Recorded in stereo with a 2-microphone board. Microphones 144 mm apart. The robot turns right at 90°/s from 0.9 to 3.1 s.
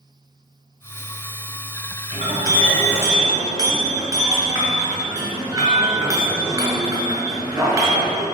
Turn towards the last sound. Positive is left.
turn(degrees=-160)